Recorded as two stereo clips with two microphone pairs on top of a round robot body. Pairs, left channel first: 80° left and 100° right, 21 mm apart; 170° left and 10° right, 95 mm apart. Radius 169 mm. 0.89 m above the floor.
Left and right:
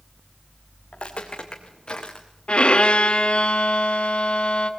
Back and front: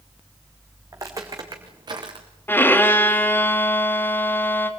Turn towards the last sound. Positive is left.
turn(degrees=100)